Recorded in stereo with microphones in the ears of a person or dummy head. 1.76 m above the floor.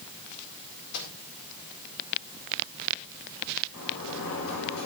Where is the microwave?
60° left (ahead or behind), 4.5 m.